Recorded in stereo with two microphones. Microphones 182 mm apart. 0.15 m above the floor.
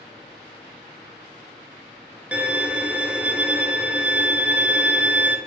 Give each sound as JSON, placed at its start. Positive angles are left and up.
{"t": 2.3, "sound": "a violin", "side_deg": -5, "distance_m": 0.8}